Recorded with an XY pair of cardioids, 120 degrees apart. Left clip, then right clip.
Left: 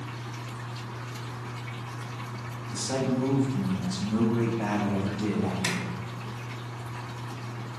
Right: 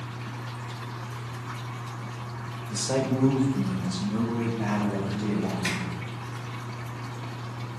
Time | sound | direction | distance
2.7 | a man speaking | 40° right | 0.9 m
5.6 | a zipper | 65° left | 1.9 m